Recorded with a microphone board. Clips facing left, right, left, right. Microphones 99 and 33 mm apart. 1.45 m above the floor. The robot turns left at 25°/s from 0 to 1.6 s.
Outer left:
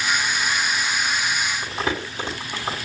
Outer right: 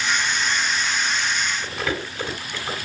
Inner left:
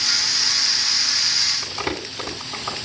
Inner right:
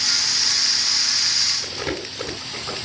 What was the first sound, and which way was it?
Crumpling, 20° left (ahead or behind).